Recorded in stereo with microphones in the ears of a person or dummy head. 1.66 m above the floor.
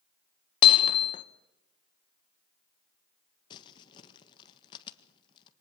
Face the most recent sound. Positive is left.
turn(degrees=35)  # may be behind; listen again after turning